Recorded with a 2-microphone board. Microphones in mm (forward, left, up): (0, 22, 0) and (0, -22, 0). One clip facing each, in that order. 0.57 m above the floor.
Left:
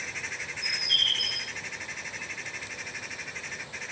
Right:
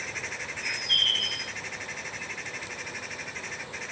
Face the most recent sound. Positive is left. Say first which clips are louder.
# right 1 dB
turn(degrees=-40)  # may be behind; listen again after turning